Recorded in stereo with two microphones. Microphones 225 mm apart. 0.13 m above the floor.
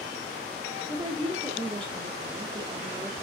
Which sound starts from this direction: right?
A woman speaking, at 0.9 s.